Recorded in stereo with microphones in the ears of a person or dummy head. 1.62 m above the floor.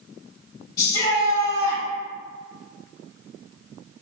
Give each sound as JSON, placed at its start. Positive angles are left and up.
{"t": 0.8, "sound": "a shout", "side_deg": 35, "distance_m": 1.7}